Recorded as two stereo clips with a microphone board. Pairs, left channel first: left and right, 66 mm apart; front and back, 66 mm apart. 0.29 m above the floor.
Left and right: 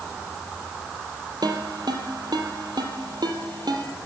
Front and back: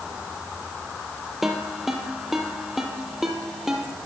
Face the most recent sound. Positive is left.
turn(degrees=-95)